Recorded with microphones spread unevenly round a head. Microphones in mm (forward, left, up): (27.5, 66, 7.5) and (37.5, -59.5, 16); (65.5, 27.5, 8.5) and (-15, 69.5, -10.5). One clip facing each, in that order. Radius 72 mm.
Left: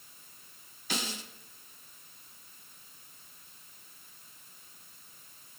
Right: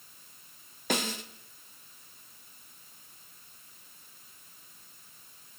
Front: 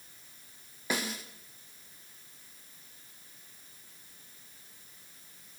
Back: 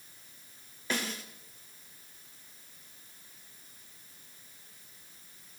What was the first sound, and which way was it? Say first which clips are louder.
A snare drum: right 6 dB, front 1 dB; 95° right.